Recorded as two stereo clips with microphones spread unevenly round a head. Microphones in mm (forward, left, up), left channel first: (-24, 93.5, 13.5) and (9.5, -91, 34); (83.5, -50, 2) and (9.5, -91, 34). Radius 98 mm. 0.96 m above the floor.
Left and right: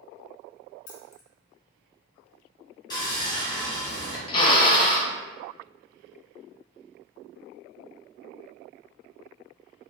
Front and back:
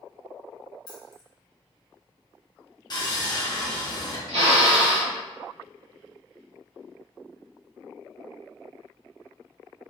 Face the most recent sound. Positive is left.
turn(degrees=160)